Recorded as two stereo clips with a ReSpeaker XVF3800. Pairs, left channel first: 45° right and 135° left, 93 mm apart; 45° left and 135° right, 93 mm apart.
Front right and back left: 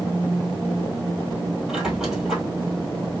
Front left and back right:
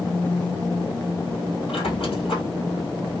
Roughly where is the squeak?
Ahead left.